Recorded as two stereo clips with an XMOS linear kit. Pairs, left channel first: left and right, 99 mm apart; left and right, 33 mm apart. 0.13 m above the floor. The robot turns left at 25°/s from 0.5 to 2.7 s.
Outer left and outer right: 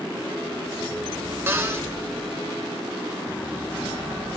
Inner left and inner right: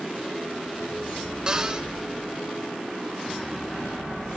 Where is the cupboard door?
25° right (ahead or behind), 1.1 m.